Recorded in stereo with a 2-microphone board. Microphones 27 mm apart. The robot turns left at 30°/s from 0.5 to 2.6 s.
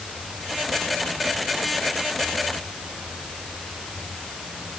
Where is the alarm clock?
I don't hear an alarm clock.